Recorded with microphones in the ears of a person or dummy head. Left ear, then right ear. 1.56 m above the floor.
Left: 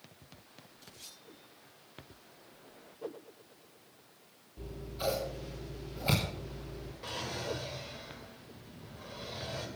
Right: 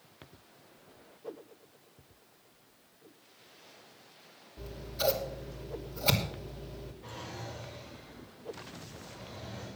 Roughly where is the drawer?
Left.